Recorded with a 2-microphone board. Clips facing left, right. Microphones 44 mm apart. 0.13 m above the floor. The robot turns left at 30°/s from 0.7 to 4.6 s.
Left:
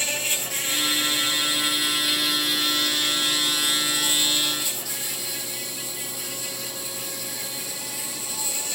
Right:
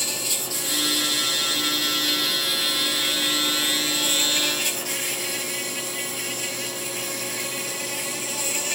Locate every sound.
0.0 s an insect: 50° left, 1.5 m; by 8.8 s 70° right, 1.5 m